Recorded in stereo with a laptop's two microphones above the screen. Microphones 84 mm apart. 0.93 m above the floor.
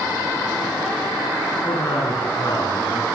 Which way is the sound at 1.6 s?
50° left (ahead or behind).